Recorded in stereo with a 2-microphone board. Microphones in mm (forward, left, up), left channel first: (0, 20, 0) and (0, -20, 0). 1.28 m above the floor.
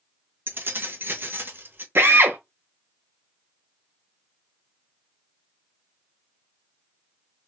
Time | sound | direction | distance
0.5 | keys jangling | 55° right (ahead or behind) | 0.9 m
1.9 | a drill | 70° right (ahead or behind) | 1.0 m